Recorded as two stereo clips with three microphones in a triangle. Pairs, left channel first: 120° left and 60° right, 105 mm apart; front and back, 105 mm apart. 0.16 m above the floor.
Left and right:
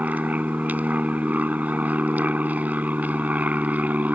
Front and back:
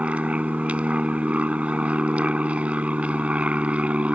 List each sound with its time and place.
0.0 s an aircraft: 115° right